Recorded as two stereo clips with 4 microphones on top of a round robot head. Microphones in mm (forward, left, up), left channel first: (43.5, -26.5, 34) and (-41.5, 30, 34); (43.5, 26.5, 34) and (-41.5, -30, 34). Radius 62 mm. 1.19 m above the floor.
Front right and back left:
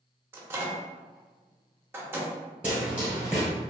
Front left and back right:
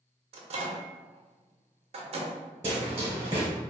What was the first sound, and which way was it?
A microwave, 145° right.